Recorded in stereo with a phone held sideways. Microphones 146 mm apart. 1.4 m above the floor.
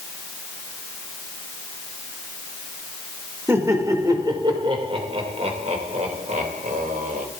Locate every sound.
3.5 s laughter: 20° right (ahead or behind), 2.5 m; by 7.3 s 70° right (ahead or behind), 3 m